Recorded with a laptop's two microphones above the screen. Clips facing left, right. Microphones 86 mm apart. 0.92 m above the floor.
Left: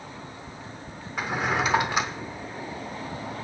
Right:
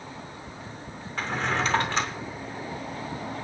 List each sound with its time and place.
1.2 s a drawer: 10° left (ahead or behind), 0.6 m